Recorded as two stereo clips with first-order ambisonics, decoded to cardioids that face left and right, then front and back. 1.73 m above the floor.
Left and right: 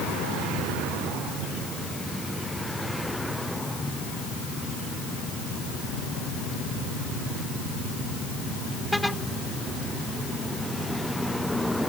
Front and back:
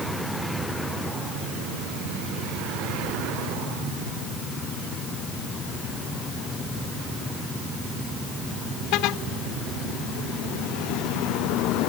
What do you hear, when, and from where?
Only background noise.